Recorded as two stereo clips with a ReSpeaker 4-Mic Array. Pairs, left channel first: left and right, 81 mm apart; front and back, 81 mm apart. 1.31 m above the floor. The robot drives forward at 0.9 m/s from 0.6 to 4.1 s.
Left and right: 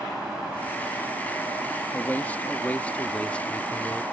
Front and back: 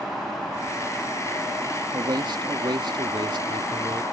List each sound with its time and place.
1.9 s a man speaking: 155° left; by 4.0 s 165° left